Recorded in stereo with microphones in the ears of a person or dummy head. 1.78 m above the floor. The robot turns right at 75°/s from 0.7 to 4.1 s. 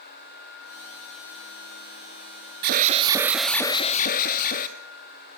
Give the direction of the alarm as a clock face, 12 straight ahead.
2 o'clock.